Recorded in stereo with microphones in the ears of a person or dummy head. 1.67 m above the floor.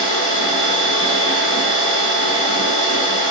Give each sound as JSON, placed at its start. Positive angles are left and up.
{"t": 0.0, "sound": "a machine running", "side_deg": 60, "distance_m": 1.9}